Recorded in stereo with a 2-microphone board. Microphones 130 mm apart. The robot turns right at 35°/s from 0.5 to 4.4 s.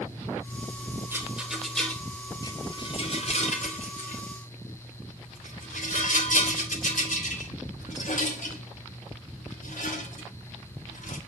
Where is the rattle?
20° right (ahead or behind), 2.5 m; by 11.2 s 85° left, 2.5 m.